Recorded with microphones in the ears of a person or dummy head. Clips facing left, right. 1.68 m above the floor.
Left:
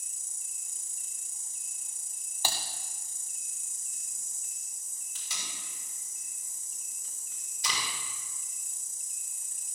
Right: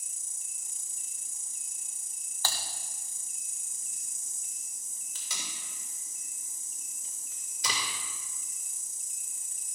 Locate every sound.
0.0 s an insect: 15° right (ahead or behind), 1.4 m
2.4 s typing on a keyboard: 15° left (ahead or behind), 0.6 m
5.2 s tape being pulled: 65° right (ahead or behind), 3 m